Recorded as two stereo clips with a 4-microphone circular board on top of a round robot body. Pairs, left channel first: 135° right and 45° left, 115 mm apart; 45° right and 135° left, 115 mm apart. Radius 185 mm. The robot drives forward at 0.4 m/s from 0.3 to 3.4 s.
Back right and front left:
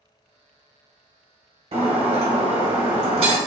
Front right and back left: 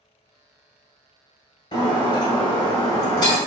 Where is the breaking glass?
5° left, 2 m; by 3.4 s 10° left, 1.4 m.